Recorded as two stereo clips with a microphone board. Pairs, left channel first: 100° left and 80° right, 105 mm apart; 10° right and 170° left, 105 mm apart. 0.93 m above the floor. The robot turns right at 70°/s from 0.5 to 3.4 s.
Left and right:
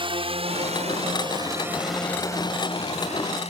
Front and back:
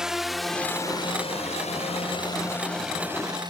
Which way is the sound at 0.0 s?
110° right.